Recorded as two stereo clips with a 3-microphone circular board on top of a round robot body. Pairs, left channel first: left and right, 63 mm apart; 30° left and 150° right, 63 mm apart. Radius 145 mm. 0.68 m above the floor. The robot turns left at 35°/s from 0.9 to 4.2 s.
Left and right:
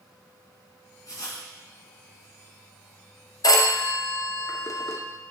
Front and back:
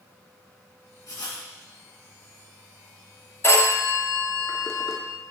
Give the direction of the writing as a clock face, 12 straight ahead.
10 o'clock.